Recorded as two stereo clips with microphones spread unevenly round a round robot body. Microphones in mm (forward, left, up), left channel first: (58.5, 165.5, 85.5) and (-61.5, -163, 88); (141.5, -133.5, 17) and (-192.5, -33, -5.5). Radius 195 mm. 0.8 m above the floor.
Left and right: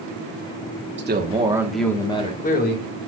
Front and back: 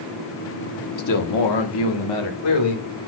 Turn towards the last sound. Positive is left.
turn(degrees=10)